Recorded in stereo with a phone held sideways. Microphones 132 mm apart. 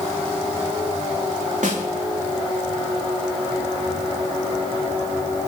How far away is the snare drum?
About 3.5 m.